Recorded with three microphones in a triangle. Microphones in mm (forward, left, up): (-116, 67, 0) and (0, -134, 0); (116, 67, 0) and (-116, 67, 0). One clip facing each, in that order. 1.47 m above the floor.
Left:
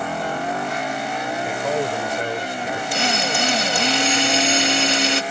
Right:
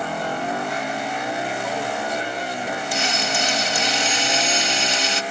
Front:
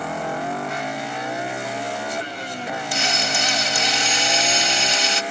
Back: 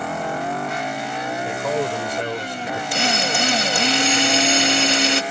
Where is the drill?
150° left.